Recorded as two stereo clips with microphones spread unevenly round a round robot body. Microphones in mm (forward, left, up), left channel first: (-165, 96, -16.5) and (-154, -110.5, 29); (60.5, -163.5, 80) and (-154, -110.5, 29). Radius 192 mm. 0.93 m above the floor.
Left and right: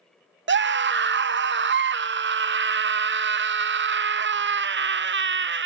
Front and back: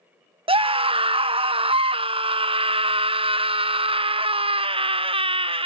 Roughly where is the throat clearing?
I don't hear throat clearing.